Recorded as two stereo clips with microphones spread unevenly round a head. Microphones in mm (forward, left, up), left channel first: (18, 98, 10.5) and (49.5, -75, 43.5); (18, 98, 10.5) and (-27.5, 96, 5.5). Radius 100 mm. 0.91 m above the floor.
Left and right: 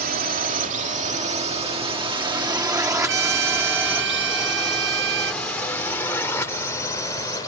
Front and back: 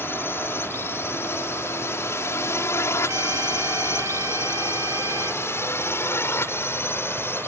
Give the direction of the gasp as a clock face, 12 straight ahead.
No gasp in this recording.